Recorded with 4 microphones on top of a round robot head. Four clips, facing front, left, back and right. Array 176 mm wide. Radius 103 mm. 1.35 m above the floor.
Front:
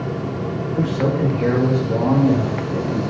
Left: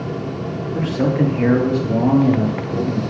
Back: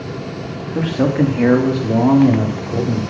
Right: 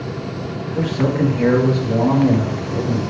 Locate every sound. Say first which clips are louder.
0.8 s a man speaking: even, back 5 dB; 165° left, 3.5 m